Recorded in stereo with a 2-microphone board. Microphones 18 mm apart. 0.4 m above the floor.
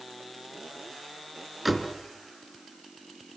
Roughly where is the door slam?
Centre.